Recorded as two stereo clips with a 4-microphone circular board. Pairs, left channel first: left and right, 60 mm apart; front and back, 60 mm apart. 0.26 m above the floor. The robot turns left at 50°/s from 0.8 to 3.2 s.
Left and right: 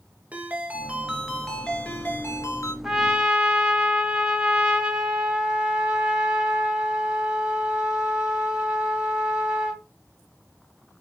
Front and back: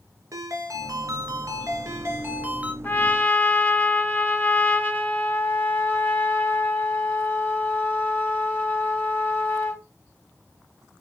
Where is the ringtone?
155° right, 2.5 m; by 2.7 s 110° left, 2.5 m.